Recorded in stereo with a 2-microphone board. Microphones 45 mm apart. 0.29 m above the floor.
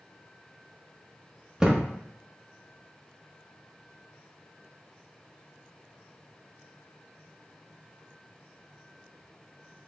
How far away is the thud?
About 0.5 m.